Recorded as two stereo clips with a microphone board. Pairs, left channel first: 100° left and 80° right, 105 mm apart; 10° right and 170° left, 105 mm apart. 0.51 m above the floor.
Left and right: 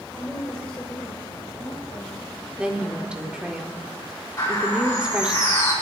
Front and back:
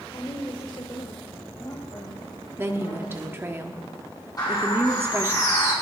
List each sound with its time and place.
0.1 s a woman speaking: 15° left, 1.8 m; by 3.4 s 40° left, 4 m
2.6 s a woman speaking: 145° right, 1.1 m
4.4 s a bird: 40° left, 8 m